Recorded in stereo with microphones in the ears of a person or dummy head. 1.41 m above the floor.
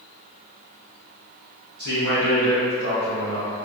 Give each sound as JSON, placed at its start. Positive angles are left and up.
{"t": 1.8, "sound": "a man speaking", "side_deg": -60, "distance_m": 1.3}